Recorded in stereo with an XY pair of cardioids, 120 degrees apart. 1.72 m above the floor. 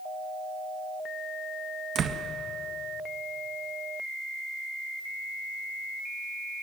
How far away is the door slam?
About 1.8 m.